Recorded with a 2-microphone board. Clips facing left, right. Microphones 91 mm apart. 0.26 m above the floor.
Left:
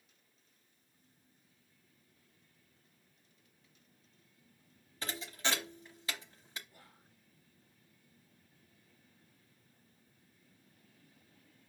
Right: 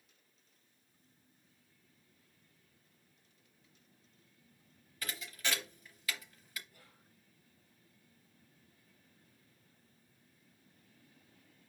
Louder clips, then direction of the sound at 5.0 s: Left 3 dB; 30° left (ahead or behind).